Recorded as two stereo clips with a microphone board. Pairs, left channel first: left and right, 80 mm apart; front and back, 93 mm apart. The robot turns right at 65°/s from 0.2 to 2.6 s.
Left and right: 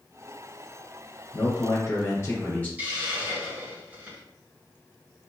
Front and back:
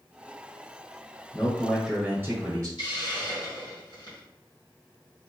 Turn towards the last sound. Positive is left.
turn(degrees=-25)